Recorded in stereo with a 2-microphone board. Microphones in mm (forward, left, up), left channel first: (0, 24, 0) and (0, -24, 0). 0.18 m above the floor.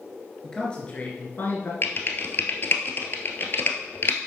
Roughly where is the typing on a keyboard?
Left.